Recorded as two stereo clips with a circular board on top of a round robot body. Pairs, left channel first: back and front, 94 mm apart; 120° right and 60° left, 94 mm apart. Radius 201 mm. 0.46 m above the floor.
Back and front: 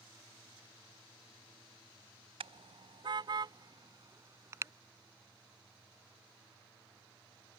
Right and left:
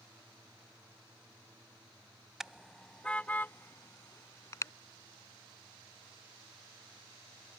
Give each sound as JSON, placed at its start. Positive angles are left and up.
{"t": 2.4, "sound": "a car horn", "azimuth_deg": -25}